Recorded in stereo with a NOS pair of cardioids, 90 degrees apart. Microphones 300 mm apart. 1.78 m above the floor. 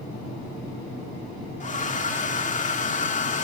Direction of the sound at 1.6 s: 25° left.